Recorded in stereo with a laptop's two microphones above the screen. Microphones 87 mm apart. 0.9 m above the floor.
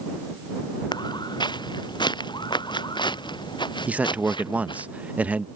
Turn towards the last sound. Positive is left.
turn(degrees=-15)  # may be behind; listen again after turning